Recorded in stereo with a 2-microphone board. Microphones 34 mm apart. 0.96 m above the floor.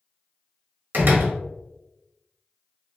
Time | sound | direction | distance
0.9 | a door slam | 60° right (ahead or behind) | 0.9 m